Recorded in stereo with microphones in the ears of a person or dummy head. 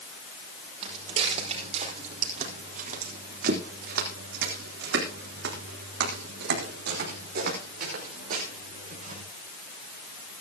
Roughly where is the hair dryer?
No hair dryer in this recording.